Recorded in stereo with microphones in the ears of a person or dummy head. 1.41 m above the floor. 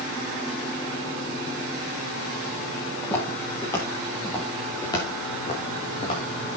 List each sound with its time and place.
3.0 s footsteps: 15° left (ahead or behind), 6.5 m; by 6.2 s 35° left (ahead or behind), 5.5 m